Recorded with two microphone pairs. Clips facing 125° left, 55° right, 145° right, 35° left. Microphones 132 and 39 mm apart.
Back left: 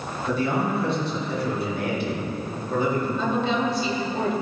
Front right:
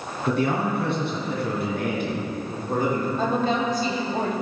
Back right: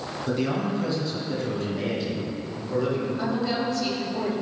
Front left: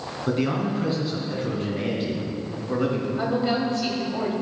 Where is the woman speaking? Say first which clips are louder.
Front right 1 dB, front left 3 dB; 20° right, 2 m.